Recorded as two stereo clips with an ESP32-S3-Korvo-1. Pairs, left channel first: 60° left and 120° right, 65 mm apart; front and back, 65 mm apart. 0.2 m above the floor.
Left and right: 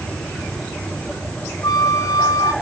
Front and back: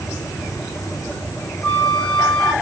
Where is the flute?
75° left, 3 m.